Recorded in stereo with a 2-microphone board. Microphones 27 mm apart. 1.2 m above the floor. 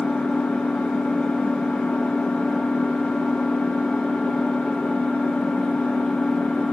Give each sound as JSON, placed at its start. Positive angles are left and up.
{"t": 0.0, "sound": "an engine running", "side_deg": 75, "distance_m": 1.0}